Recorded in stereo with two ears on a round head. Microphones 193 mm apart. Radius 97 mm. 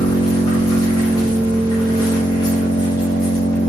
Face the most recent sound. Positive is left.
turn(degrees=20)  # may be behind; listen again after turning